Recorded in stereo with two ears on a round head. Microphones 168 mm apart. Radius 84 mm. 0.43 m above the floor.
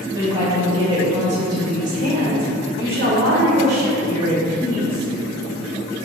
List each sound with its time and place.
0.1 s a woman speaking: 20° right (ahead or behind), 1.5 m; by 5.1 s 50° right (ahead or behind), 2.5 m